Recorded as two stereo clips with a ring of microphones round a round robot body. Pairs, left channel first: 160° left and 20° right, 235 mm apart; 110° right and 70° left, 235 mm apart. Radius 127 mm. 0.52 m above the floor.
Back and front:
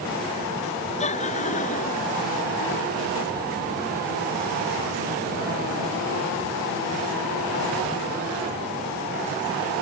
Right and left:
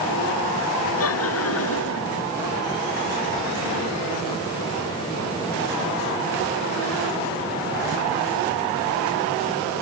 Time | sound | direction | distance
1.0 | laughter | 140° right | ?